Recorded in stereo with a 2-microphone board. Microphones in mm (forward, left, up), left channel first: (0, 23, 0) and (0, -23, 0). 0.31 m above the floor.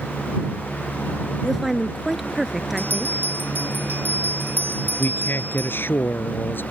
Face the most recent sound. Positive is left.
turn(degrees=50)  # may be behind; listen again after turning